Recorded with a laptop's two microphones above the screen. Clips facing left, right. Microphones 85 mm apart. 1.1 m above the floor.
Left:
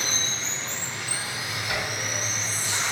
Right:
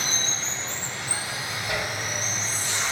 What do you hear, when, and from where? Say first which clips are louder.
0.0 s running water: right 1 dB; 35° right (ahead or behind), 1.0 m
1.7 s a zipper: right 1 dB; 30° right (ahead or behind), 2.5 m